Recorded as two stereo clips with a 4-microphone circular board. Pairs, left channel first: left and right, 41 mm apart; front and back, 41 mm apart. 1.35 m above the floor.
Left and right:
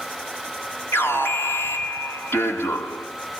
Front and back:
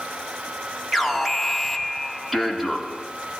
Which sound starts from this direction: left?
An alarm, at 0.9 s.